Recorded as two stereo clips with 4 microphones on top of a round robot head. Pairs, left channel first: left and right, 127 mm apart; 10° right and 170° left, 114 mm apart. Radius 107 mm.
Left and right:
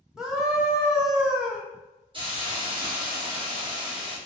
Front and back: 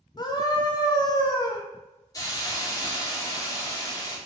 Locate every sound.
0.2 s a scream: 5° right, 0.8 m
2.1 s a hiss: 55° right, 1.2 m